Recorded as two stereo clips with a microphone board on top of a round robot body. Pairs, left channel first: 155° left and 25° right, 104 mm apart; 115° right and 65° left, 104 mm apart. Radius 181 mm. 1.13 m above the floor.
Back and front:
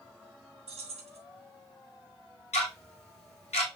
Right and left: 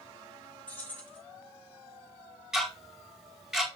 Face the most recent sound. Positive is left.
turn(degrees=155)